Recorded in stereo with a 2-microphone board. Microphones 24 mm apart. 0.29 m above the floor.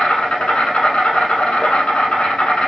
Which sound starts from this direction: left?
An insect, at 0.0 s.